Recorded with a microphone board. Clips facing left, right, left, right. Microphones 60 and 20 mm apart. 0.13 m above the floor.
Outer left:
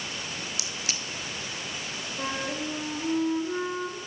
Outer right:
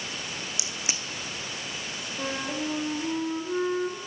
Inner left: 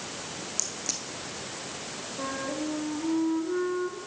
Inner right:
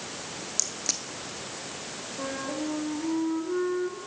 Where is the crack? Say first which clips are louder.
Even, inner right 3 dB; 20° right (ahead or behind), 0.6 m.